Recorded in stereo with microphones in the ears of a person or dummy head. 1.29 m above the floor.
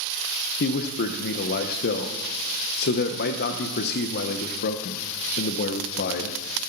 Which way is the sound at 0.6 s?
55° left (ahead or behind).